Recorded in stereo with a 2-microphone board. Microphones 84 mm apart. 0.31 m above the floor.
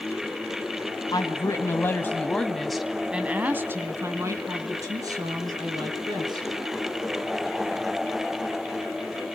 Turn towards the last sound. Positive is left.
turn(degrees=-50)  # may be behind; listen again after turning